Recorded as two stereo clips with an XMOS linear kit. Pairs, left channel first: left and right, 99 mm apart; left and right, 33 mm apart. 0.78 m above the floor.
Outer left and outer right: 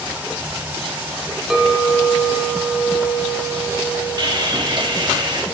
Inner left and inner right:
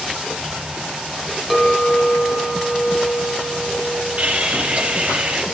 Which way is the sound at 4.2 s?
45° right (ahead or behind).